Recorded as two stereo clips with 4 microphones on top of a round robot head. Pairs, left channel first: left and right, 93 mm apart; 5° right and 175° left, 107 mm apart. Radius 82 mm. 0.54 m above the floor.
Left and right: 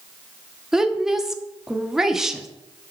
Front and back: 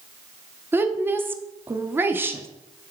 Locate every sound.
0.7 s a woman speaking: 165° right, 0.7 m